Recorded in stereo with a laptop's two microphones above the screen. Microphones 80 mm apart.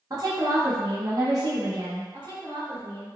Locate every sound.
0.1 s a woman speaking: 45° right (ahead or behind), 0.6 m
2.1 s a woman speaking: 60° right (ahead or behind), 1.6 m